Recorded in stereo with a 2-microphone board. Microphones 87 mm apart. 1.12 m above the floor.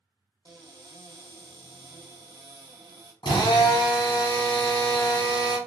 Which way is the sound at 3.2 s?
65° left (ahead or behind).